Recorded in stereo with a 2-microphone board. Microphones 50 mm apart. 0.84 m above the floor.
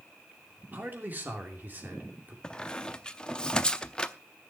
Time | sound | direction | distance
0.7 | a man speaking | 40° right (ahead or behind) | 2.5 m
2.4 | a squeak | 15° left (ahead or behind) | 0.6 m